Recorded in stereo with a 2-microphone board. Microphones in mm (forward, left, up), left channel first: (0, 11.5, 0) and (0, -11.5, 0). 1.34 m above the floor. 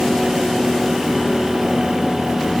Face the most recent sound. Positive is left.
No sound to turn to.